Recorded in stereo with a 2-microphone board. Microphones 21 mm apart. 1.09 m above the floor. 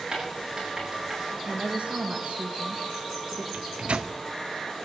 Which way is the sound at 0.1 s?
30° right (ahead or behind).